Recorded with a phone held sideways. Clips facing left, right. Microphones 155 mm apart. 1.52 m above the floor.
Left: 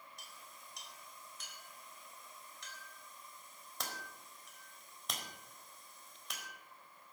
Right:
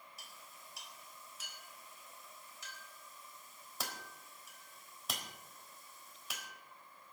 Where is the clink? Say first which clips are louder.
Even; 5° right (ahead or behind), 4.5 m.